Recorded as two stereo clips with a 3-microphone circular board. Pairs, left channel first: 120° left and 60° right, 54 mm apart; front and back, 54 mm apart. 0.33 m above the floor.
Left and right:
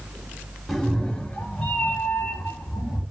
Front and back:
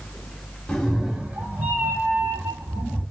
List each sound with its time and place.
0.7 s a cat meowing: 35° left, 0.6 m; by 3.0 s 170° left, 1.6 m